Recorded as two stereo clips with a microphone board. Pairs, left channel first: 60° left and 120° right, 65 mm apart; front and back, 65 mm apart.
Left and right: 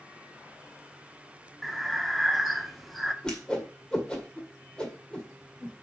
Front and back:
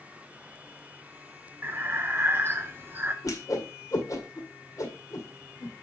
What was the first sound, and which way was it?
Breathing, 150° left.